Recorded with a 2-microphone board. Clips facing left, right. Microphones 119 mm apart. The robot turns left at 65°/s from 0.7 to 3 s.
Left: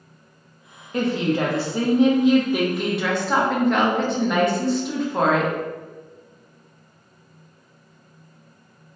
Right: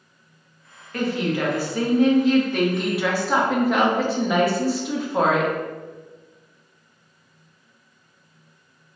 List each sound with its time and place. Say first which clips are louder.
0.9 s a woman speaking: left 2 dB; 20° left (ahead or behind), 0.6 m; by 5.5 s 5° right (ahead or behind), 0.6 m